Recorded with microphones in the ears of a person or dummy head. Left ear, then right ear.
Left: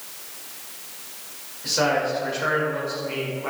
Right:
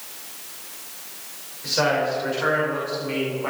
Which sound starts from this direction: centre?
A man speaking, at 1.6 s.